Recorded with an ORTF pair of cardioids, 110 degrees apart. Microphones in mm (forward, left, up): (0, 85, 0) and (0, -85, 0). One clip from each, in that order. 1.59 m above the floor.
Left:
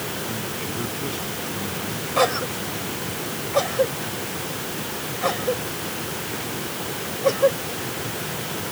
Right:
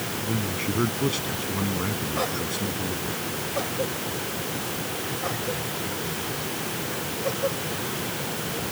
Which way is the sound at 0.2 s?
50° right.